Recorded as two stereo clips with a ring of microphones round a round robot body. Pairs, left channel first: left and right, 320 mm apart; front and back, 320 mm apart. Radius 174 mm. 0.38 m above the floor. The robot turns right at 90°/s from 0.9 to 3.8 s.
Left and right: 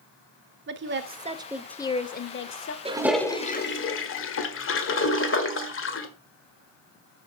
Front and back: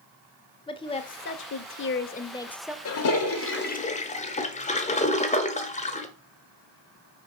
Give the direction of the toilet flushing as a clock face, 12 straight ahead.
1 o'clock.